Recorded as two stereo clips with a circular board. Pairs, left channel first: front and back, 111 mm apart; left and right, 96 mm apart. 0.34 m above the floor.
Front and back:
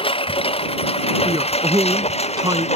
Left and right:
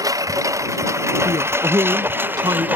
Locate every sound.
0.0 s a lawn mower: 35° right; by 2.8 s 15° right
1.2 s a man speaking: 130° right